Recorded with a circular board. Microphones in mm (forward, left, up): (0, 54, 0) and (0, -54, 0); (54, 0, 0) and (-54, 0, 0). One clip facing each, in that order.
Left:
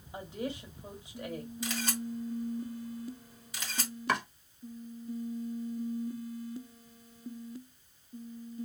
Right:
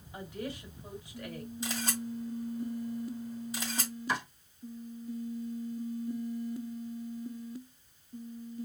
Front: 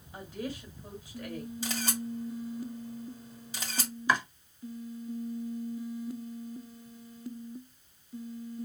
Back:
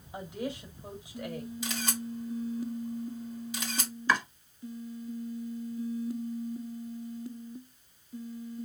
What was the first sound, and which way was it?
A woman speaking, 125° left.